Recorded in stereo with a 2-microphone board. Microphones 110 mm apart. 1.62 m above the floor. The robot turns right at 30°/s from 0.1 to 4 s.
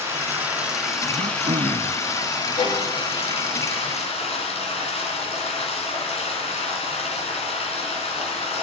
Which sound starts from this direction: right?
Throat clearing, at 1.1 s.